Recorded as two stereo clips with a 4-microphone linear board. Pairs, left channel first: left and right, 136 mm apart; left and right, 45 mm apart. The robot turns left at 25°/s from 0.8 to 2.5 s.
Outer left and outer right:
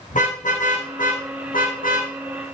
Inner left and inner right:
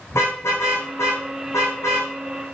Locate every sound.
0.1 s a car horn: 70° left (ahead or behind), 8 m; by 2.1 s 80° left, 8 m